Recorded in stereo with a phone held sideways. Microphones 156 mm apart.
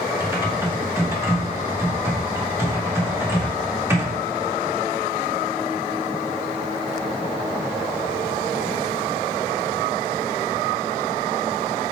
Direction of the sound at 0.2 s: 15° right (ahead or behind).